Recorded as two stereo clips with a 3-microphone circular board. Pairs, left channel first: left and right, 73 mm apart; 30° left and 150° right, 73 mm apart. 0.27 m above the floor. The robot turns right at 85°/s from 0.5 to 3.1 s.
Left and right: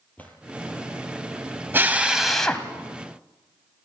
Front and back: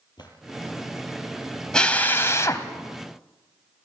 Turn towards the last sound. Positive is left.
turn(degrees=70)